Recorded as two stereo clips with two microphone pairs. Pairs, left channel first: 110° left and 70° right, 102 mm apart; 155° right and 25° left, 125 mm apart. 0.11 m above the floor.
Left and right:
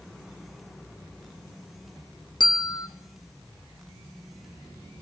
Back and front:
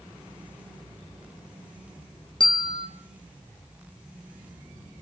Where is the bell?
150° left, 1.6 m.